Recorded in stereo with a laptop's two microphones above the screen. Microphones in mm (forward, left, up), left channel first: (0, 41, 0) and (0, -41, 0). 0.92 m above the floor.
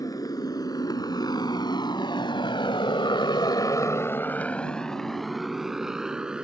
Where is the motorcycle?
50° left (ahead or behind); by 6.5 s 10° right (ahead or behind).